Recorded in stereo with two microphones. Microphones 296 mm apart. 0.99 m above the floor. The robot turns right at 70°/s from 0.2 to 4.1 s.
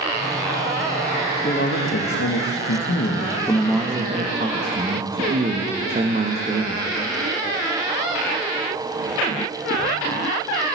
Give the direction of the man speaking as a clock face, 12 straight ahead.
11 o'clock.